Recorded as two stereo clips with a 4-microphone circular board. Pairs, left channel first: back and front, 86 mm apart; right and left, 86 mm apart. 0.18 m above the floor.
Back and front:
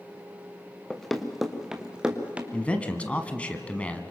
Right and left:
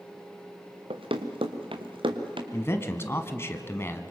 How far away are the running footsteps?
About 1.6 m.